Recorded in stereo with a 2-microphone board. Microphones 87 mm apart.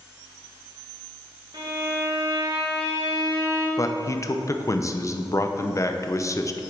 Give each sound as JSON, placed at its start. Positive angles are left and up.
{"t": 1.5, "sound": "a violin", "side_deg": -60, "distance_m": 1.9}
{"t": 3.8, "sound": "a man speaking", "side_deg": 35, "distance_m": 0.6}